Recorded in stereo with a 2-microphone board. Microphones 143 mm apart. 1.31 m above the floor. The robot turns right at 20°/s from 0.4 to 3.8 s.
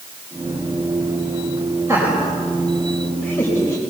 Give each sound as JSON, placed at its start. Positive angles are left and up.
{"t": 1.9, "sound": "laughter", "side_deg": -20, "distance_m": 5.0}